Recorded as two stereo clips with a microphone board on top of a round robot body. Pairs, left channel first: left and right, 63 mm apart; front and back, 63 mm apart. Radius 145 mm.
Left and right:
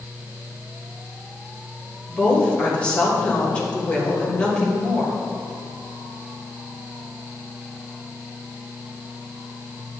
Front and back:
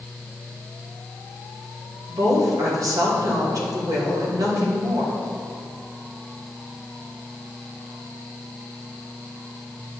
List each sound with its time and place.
2.1 s a woman speaking: 160° left, 2.5 m